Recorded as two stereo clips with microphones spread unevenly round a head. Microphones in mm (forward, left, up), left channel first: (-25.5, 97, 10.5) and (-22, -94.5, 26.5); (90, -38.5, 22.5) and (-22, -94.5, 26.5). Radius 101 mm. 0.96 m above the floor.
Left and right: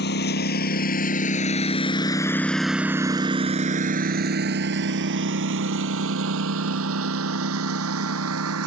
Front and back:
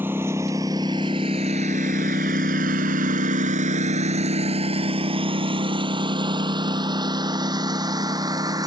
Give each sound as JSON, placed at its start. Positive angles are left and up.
{"t": 0.0, "sound": "a lawn mower", "azimuth_deg": 125}